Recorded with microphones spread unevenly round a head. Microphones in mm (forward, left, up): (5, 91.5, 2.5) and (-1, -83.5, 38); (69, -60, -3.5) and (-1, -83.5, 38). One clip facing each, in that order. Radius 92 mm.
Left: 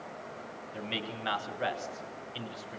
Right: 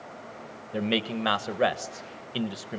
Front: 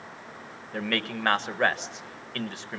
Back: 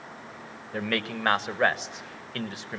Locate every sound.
0.7 s a man speaking: 65° right, 1.5 m